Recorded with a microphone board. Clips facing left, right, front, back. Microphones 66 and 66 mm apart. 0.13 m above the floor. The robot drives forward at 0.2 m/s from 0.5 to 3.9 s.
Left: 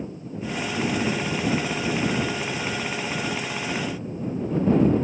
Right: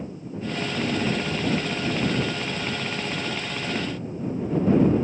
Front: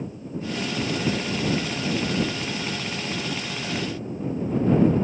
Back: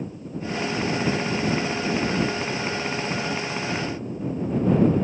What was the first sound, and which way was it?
Only background noise.